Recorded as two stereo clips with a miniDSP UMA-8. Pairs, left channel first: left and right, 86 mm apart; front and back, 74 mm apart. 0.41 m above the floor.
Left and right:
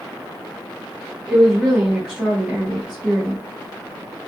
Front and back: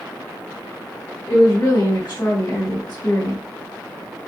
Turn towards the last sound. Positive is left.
turn(degrees=-15)